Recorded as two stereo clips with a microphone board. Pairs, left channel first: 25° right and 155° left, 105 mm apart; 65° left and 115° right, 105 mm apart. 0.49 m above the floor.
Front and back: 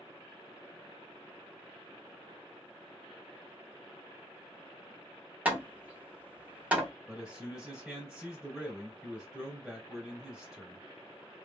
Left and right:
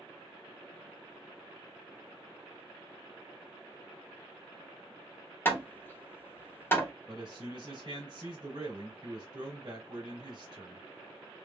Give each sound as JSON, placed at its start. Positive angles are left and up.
{"t": 5.5, "sound": "hammering", "azimuth_deg": 100, "distance_m": 1.0}
{"t": 7.1, "sound": "a man speaking", "azimuth_deg": -120, "distance_m": 2.0}